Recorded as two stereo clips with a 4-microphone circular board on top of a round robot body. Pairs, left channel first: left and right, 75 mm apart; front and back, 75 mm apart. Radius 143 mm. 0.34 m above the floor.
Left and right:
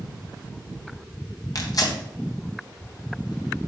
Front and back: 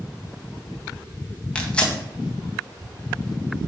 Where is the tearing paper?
75° left, 1.5 m.